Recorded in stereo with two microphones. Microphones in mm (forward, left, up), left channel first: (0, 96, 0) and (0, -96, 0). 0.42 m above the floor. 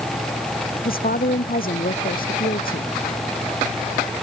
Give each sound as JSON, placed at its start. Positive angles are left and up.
{"t": 0.8, "sound": "a woman speaking", "side_deg": 45}